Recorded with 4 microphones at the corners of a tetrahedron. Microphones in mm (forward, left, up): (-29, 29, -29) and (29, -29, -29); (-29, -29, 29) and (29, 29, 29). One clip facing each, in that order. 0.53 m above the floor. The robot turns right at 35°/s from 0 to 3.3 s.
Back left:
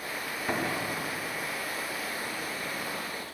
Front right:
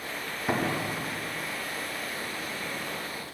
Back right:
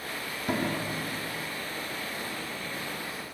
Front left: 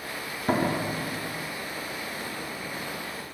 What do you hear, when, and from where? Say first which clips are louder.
0.5 s a door slam: front right 3 dB, front left 5 dB; 20° left, 0.9 m; by 1.6 s 60° left, 0.9 m